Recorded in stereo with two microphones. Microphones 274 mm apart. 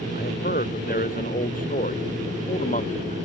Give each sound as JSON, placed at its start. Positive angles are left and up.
{"t": 0.1, "sound": "a man speaking", "side_deg": 35}